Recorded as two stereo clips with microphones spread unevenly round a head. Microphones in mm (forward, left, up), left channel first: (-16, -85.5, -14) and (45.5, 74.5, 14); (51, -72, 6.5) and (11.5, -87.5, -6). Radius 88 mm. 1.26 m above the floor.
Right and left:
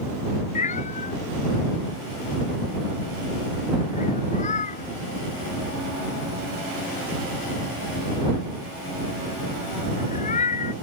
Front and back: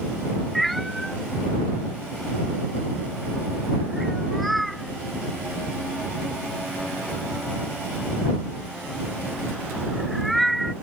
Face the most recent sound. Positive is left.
turn(degrees=-60)